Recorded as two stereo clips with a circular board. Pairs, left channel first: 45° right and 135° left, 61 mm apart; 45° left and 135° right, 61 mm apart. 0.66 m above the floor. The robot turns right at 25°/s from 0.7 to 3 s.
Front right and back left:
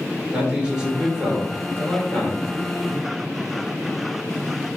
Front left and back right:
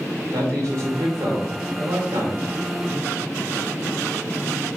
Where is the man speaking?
155° right, 2.5 m; by 2.5 s 110° right, 2.5 m.